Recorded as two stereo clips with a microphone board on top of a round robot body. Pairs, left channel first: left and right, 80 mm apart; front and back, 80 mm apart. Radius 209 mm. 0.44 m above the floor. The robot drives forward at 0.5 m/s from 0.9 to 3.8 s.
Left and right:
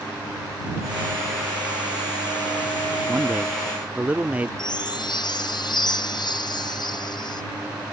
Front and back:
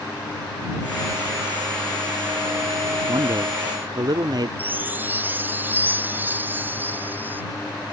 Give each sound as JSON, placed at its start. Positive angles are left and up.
{"t": 3.1, "sound": "a man speaking", "azimuth_deg": -155}
{"t": 4.6, "sound": "a chime", "azimuth_deg": 115}